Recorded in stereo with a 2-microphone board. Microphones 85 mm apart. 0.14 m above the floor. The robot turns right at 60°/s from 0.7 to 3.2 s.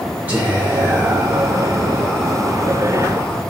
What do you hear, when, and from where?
0.3 s whispering: 20° right (ahead or behind), 1.0 m; by 3.4 s 20° left (ahead or behind), 1.0 m